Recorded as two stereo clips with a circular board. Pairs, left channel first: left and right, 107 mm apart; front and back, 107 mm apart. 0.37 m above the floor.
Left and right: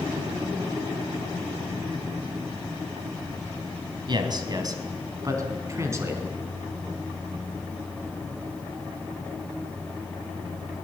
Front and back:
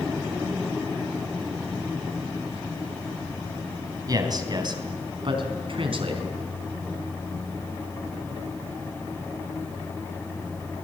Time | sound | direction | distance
4.1 | a man speaking | 130° right | 3.5 m